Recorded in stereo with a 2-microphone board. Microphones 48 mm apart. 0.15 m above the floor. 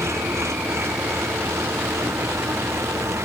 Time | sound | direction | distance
0.0 | an engine running | 80° right | ?